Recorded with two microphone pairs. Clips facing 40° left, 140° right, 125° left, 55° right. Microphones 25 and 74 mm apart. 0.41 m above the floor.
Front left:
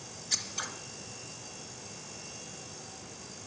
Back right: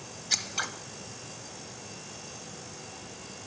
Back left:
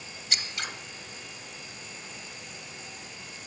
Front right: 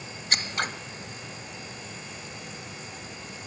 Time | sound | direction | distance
0.3 | scissors | 90° right | 1.2 m